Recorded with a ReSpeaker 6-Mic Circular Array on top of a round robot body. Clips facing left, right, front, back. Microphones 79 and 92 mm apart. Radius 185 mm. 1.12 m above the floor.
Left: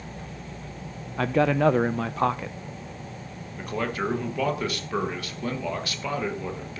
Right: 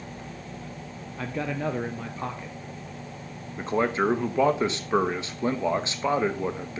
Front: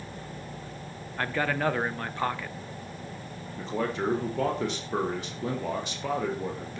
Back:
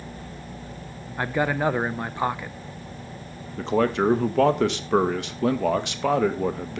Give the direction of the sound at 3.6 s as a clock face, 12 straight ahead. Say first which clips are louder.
Right 4 dB, back 8 dB; 5 o'clock.